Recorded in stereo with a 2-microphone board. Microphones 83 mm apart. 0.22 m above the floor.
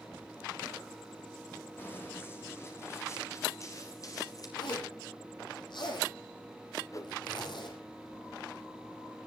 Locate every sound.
1.8 s running footsteps: 25° left (ahead or behind), 5 m; by 4.5 s 45° left (ahead or behind), 4 m
4.6 s a zipper: 60° left (ahead or behind), 4.5 m
6.9 s a whoosh: 40° left (ahead or behind), 1.2 m